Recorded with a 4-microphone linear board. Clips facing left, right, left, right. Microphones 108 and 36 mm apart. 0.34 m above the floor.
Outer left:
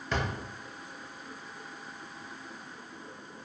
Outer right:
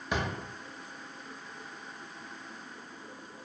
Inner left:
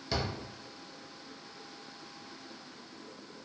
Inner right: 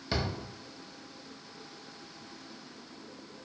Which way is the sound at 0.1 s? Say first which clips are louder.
Even, inner right 1 dB; 15° right (ahead or behind).